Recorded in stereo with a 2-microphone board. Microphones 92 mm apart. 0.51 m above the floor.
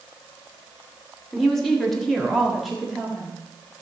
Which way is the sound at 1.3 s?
5° left (ahead or behind).